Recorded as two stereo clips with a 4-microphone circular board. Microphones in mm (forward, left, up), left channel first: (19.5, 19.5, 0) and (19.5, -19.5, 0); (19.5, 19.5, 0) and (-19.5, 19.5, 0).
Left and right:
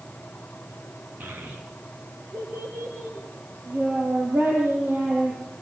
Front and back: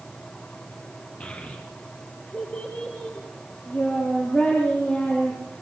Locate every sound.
1.2 s a child speaking: 50° right, 2.5 m; by 5.4 s 55° right, 8 m